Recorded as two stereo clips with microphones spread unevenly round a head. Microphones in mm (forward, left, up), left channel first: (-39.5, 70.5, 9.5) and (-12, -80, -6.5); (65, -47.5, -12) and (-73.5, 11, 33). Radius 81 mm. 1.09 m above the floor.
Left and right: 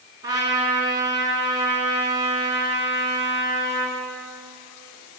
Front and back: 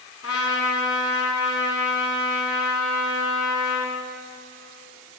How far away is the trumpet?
About 4.5 m.